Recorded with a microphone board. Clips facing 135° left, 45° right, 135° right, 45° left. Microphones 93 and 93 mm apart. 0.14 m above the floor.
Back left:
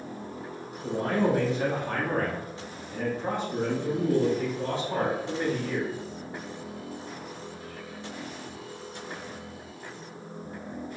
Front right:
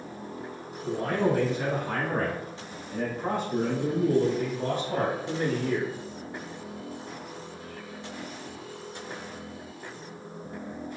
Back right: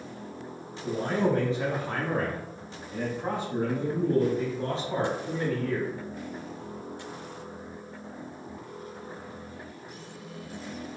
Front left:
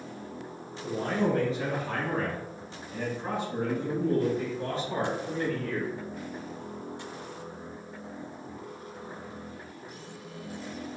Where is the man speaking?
175° right, 1.6 m; by 5.9 s 65° right, 3 m.